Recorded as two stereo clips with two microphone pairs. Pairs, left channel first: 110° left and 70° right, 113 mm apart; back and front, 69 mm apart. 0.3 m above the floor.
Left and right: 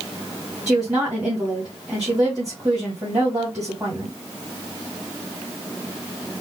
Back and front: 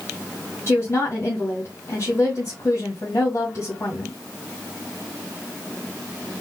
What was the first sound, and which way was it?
A woman speaking, 135° right.